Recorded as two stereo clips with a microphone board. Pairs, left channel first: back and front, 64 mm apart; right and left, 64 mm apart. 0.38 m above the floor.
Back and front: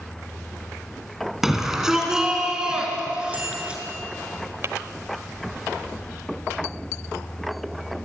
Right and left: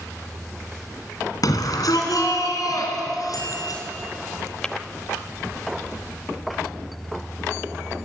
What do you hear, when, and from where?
1.4 s a shout: 85° right, 3.5 m; by 3.8 s 70° right, 5 m
3.3 s a bicycle bell: 60° right, 6.5 m
4.6 s tapping: 20° right, 0.8 m